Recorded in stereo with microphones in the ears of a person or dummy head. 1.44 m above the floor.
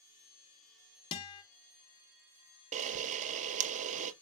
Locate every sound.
1.1 s a guitar: 25° left (ahead or behind), 0.6 m
2.7 s a camera shutter: 40° right (ahead or behind), 0.5 m